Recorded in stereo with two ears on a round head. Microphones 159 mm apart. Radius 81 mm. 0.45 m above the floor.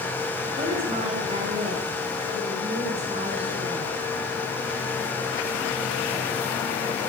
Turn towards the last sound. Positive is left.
turn(degrees=-35)  # may be behind; listen again after turning